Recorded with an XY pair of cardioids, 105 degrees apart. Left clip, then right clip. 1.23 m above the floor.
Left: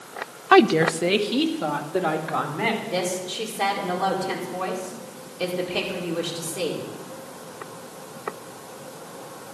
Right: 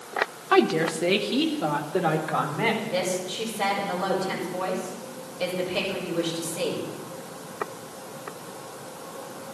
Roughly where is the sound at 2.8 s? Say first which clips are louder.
Even; ahead left.